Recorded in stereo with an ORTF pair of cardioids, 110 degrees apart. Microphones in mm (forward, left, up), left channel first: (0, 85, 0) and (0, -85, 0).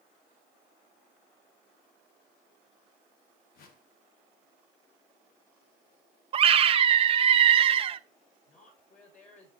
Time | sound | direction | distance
3.5 | a whoosh | 65° left | 2 m
6.3 | a scream | 35° right | 0.7 m
8.5 | a woman speaking | 50° left | 7 m